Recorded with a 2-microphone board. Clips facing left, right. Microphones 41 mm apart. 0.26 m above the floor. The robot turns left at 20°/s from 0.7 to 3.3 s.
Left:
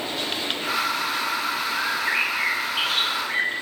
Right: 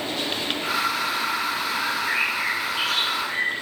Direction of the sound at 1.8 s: 105° left.